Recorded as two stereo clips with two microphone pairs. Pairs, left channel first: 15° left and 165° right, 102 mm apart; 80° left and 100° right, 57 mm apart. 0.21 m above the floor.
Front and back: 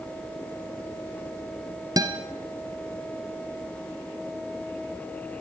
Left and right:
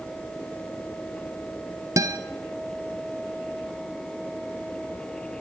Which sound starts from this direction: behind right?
A guitar, at 2.0 s.